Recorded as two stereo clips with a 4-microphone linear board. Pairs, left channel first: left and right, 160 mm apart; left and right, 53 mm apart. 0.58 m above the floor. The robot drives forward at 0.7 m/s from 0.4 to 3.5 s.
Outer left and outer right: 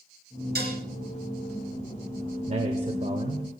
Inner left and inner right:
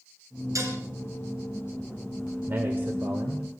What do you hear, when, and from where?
0.6 s dishes clattering: 85° right, 5 m
2.5 s a man speaking: 45° right (ahead or behind), 2 m; by 3.5 s 35° right (ahead or behind), 2.5 m